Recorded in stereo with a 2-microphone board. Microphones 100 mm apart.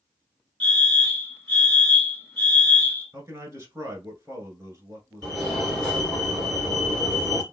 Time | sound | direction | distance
0.6 | a fire alarm | 20° left (ahead or behind) | 2 m
3.1 | a man speaking | 30° right (ahead or behind) | 1.4 m
5.2 | a fire alarm | 5° left (ahead or behind) | 2.5 m